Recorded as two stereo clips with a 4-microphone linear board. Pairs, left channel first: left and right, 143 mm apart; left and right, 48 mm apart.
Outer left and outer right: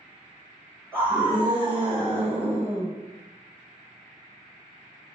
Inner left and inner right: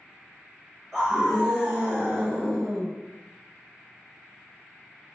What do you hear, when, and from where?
0.9 s a scream: 10° left (ahead or behind), 2.5 m; by 2.9 s 15° left (ahead or behind), 1.4 m